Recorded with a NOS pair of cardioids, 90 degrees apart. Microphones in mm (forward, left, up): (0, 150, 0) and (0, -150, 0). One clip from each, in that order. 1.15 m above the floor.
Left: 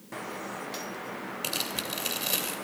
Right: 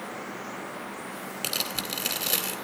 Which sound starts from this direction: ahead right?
Tearing paper, at 1.4 s.